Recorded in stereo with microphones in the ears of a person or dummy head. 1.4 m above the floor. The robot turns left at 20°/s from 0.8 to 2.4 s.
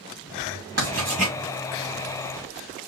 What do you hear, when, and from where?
0.8 s writing: 45° right (ahead or behind), 2.5 m; by 1.4 s 35° right (ahead or behind), 2.5 m